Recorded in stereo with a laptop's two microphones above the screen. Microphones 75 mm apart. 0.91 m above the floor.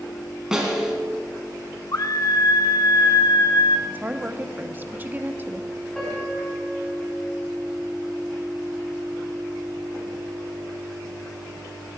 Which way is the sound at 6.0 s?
10° left (ahead or behind).